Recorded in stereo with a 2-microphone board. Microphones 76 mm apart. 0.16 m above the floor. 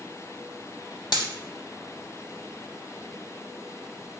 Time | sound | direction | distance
1.1 | a dropped coin | 85° left | 0.5 m